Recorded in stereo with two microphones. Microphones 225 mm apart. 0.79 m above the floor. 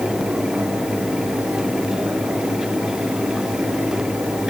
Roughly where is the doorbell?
No doorbell in this recording.